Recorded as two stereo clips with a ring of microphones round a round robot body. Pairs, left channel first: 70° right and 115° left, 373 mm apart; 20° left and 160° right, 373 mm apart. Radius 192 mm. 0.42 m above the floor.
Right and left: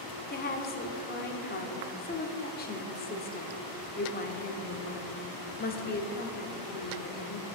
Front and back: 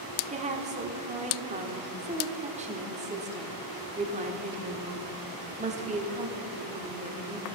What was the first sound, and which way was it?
A woman speaking, 105° right.